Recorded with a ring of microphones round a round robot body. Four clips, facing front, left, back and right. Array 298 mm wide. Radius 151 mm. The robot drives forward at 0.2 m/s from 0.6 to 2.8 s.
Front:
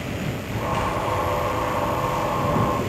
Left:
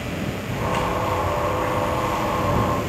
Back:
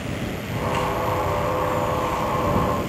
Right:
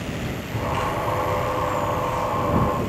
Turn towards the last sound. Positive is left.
turn(degrees=130)